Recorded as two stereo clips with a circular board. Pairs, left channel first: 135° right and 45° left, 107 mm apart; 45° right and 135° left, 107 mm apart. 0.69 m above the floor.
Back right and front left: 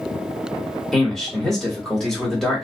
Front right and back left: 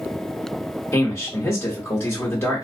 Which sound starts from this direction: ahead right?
A man speaking, at 0.9 s.